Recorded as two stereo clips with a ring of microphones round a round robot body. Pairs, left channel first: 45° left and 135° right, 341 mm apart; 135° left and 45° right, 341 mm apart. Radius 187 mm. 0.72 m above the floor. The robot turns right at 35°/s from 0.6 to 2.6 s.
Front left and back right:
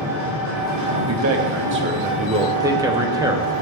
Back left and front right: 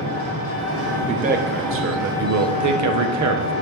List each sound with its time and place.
0.0 s an engine running: 175° left, 2.5 m; by 3.6 s 115° right, 2.5 m
1.1 s a man speaking: 110° right, 0.9 m; by 3.5 s 60° right, 0.9 m